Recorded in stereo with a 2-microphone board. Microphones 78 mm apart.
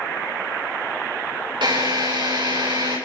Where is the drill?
85° right, 7.5 m.